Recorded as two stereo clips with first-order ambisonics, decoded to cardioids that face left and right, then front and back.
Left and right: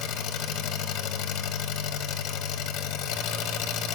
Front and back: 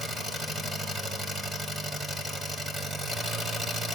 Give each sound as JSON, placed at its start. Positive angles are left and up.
{"t": 0.0, "sound": "an engine running", "azimuth_deg": 105, "distance_m": 1.0}